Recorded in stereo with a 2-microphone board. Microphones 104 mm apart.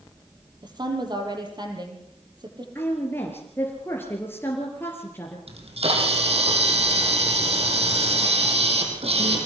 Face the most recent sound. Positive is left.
turn(degrees=-75)  # may be behind; listen again after turning